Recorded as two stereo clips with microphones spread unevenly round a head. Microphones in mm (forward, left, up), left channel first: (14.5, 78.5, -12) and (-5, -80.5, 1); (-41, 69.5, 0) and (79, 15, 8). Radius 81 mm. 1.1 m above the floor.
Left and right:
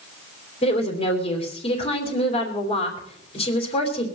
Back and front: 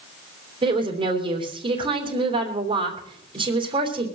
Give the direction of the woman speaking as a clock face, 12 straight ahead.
11 o'clock.